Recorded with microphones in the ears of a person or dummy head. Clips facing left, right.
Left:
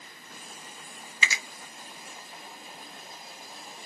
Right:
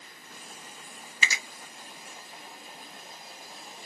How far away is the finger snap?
About 0.6 m.